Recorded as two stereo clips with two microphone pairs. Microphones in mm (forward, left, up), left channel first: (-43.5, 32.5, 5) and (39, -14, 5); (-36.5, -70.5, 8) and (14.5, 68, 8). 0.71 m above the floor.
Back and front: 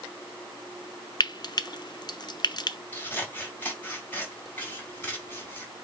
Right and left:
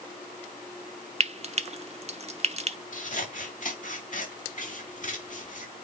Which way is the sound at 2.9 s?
140° right.